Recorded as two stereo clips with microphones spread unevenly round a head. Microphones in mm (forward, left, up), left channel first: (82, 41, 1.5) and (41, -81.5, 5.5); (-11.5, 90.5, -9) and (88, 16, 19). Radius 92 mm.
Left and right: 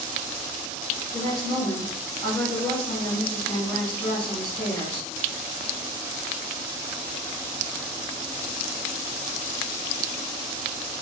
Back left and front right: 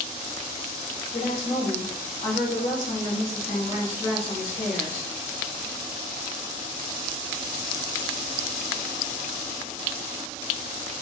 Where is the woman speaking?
140° left, 1.8 m.